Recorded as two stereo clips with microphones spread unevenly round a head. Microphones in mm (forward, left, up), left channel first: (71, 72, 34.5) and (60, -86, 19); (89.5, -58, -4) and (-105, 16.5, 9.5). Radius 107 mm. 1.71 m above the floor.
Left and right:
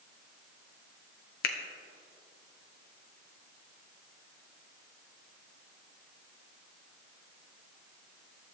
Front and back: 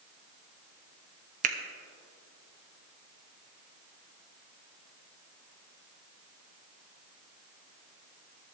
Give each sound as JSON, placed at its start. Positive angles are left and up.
{"t": 1.4, "sound": "a finger snap", "azimuth_deg": 110, "distance_m": 0.7}